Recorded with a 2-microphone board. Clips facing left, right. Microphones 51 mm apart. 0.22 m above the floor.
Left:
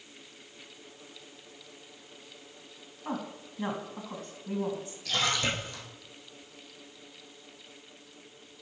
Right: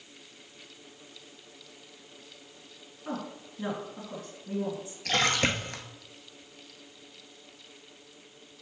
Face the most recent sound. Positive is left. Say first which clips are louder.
# right 3 dB
turn(degrees=-60)  # may be behind; listen again after turning